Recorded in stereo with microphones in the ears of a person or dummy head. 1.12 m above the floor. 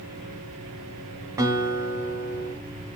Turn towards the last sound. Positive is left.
turn(degrees=-20)  # may be behind; listen again after turning